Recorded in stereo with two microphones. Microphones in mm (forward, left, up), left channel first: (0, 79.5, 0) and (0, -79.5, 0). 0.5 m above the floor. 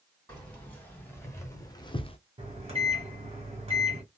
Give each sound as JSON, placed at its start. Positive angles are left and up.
{"t": 0.3, "sound": "keys jangling", "side_deg": 10, "distance_m": 2.0}
{"t": 2.4, "sound": "a microwave", "side_deg": -40, "distance_m": 1.6}